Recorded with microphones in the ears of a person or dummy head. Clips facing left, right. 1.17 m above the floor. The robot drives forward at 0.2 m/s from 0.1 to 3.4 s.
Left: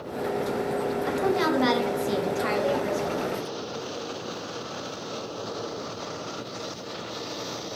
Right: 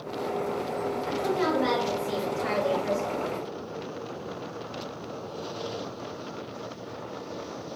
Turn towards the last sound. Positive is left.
turn(degrees=45)  # may be behind; listen again after turning